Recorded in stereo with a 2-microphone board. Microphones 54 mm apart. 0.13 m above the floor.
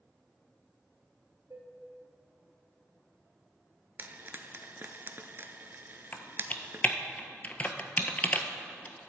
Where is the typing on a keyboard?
30° left (ahead or behind), 0.7 m.